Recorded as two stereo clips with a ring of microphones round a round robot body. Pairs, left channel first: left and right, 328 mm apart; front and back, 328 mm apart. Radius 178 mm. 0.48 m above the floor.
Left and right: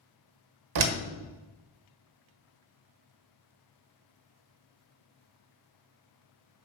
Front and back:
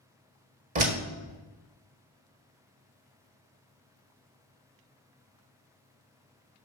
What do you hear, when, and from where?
0.8 s a door slam: 110° right, 1.2 m